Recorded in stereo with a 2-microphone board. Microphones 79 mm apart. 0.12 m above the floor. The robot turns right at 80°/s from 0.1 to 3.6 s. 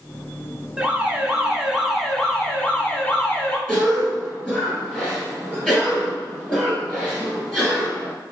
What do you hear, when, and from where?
0.8 s an alarm: 20° right (ahead or behind), 0.8 m; by 3.6 s 15° left (ahead or behind), 0.8 m
3.7 s a cough: 10° right (ahead or behind), 1.3 m